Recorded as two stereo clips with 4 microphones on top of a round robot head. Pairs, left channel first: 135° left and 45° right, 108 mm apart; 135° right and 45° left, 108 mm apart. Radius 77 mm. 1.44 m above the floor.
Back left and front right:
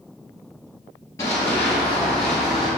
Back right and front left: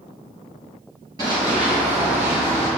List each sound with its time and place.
1.2 s running footsteps: 80° left, 1.6 m; by 2.7 s 50° left, 3 m